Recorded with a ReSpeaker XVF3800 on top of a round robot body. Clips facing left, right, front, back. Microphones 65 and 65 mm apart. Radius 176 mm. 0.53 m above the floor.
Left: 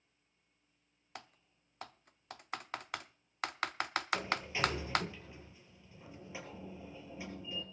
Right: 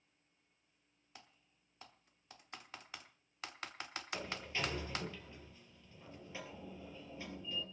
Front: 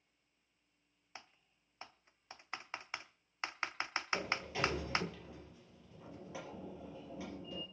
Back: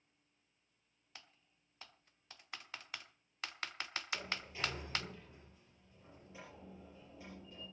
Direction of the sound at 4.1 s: 15° left.